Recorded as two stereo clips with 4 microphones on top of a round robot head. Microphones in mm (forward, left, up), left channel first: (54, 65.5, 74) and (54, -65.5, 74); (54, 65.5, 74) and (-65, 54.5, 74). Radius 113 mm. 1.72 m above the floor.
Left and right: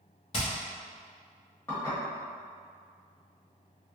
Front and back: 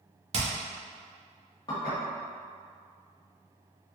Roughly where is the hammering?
Behind left.